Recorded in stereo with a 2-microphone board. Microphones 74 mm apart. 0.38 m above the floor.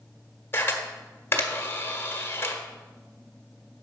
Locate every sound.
0.5 s a camera shutter: 30° left (ahead or behind), 1.4 m